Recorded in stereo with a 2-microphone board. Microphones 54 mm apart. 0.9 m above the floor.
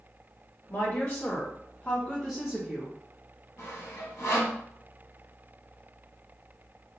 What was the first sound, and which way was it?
A woman speaking, 45° left (ahead or behind).